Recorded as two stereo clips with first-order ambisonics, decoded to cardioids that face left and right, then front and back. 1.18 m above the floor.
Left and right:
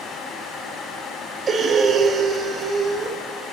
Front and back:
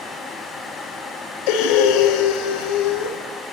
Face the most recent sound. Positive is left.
turn(degrees=-20)